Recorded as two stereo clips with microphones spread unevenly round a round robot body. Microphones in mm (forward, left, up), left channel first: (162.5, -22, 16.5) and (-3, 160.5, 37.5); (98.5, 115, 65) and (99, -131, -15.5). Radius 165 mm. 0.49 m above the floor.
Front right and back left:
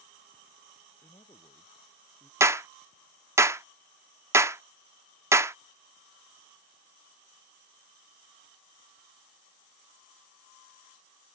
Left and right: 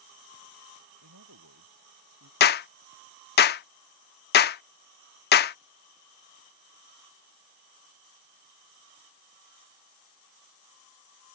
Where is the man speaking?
130° right; by 2.3 s 135° right.